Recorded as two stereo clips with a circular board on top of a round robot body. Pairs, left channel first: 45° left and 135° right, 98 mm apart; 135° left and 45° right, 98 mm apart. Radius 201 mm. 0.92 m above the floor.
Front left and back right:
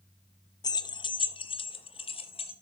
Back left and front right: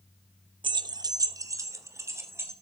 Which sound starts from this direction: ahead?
Keys jangling, at 0.6 s.